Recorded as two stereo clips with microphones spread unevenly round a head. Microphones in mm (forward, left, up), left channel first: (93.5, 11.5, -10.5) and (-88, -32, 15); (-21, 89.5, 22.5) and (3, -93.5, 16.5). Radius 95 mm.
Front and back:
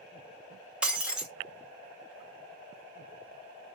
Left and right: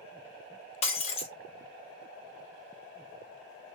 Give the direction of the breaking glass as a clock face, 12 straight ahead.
8 o'clock.